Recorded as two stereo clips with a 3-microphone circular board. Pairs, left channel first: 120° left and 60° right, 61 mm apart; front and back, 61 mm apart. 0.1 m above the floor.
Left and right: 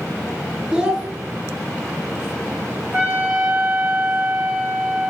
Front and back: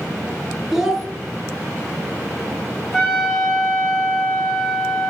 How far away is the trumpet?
About 1.4 m.